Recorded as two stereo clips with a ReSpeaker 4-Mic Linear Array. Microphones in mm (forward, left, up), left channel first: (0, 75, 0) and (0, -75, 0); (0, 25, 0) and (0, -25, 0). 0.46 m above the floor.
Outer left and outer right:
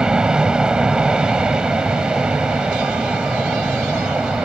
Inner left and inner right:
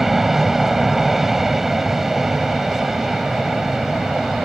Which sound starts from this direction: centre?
An aircraft, at 0.0 s.